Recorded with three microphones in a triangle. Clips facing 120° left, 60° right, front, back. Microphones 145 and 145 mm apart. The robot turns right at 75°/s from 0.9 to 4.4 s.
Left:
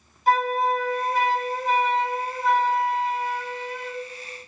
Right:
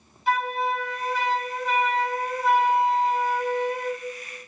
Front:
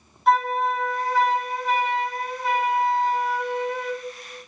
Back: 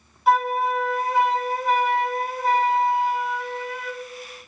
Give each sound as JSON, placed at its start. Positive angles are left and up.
{"t": 0.3, "sound": "a flute", "azimuth_deg": 95, "distance_m": 1.4}